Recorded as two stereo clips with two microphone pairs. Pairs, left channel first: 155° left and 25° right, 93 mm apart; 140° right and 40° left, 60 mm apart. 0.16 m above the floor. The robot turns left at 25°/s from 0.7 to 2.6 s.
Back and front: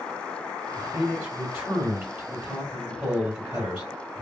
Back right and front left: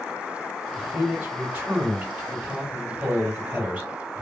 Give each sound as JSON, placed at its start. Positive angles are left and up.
{"t": 0.8, "sound": "a man speaking", "azimuth_deg": 70, "distance_m": 1.7}